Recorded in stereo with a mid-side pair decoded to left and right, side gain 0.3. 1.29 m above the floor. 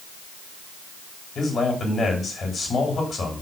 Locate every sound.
1.4 s a man speaking: 60° left, 4 m